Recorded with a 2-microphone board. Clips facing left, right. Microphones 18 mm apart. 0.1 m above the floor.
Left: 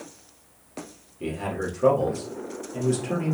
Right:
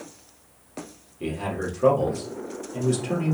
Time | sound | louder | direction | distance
1.2 | a man speaking | even | 5° right (ahead or behind) | 2 m